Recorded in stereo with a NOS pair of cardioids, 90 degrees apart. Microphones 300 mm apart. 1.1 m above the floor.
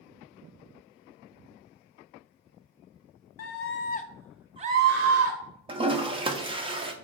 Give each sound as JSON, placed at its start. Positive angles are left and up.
{"t": 3.4, "sound": "a scream", "azimuth_deg": 55, "distance_m": 0.7}
{"t": 5.7, "sound": "a toilet flushing", "azimuth_deg": -15, "distance_m": 0.5}